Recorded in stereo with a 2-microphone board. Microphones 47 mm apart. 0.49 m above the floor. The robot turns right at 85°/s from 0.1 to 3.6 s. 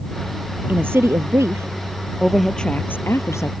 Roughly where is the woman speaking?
Behind right.